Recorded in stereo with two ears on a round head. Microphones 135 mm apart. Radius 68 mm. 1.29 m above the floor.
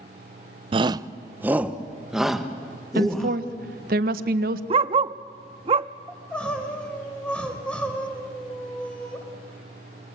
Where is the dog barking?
35° right (ahead or behind), 0.8 m.